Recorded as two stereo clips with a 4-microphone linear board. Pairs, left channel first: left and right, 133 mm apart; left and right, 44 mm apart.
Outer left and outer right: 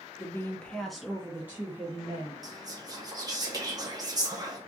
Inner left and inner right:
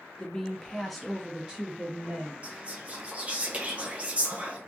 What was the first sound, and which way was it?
A woman speaking, 20° left (ahead or behind).